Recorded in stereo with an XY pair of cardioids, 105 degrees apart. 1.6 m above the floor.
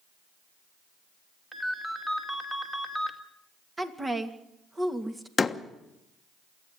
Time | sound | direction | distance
1.5 | a ringtone | 10° right | 2.5 m
3.8 | a woman speaking | 20° right | 2.5 m
5.4 | a door slam | 30° left | 1.2 m